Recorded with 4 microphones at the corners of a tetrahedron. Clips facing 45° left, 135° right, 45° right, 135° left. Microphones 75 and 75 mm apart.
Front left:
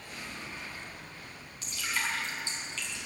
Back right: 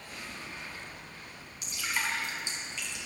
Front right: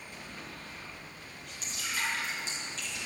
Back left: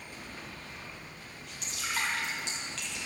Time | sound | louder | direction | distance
1.6 | dripping | even, back left 1 dB | 155° left | 4.5 m